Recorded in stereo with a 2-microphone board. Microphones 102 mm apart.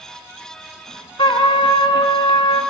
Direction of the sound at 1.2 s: 60° left (ahead or behind).